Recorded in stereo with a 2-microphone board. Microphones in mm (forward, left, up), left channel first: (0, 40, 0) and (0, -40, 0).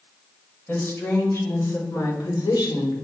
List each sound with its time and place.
0.7 s a woman speaking: 30° left (ahead or behind), 5.5 m; by 3.0 s 65° left (ahead or behind), 3.5 m